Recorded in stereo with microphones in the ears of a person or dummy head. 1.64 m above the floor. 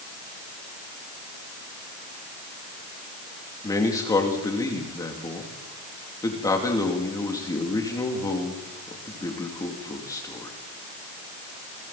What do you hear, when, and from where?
3.6 s a man speaking: 20° left (ahead or behind), 3 m